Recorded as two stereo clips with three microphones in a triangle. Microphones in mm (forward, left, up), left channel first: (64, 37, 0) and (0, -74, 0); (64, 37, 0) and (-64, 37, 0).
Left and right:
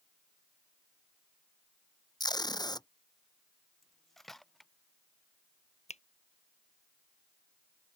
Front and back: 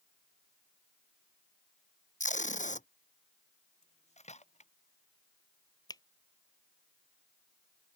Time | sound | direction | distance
2.2 | tape being pulled | 5° left | ?
3.8 | cutlery clinking | 30° right | ?
5.9 | a finger snap | 55° left | ?